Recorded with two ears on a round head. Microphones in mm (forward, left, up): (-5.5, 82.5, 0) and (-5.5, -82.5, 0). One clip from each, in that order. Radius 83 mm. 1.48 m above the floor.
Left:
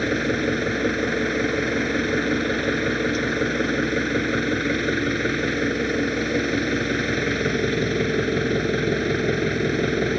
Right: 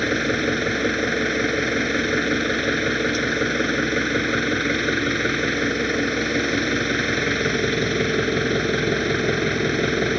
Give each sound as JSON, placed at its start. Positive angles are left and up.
{"t": 0.0, "sound": "an engine running", "side_deg": -25}